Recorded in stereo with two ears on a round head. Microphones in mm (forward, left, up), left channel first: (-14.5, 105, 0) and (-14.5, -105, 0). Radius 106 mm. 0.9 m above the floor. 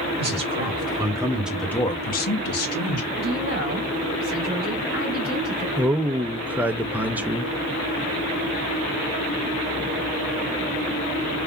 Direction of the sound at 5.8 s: 5° right (ahead or behind).